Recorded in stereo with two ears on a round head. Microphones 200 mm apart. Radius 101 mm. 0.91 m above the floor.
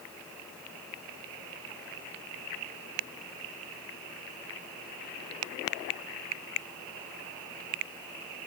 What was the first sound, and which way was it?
Only background noise.